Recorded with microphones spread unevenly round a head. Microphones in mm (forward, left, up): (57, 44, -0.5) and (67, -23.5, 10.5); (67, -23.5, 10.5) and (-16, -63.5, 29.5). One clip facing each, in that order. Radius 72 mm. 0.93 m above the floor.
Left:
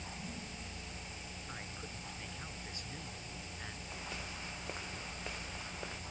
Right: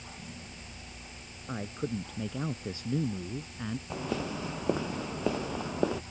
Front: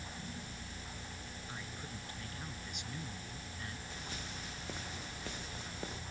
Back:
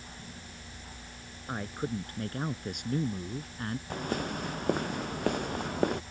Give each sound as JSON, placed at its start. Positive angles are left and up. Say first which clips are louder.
{"t": 1.5, "sound": "a man speaking", "louder": "right 15 dB, back 16 dB", "azimuth_deg": -115}
{"t": 3.9, "sound": "footsteps", "louder": "right 12 dB, back 13 dB", "azimuth_deg": -115}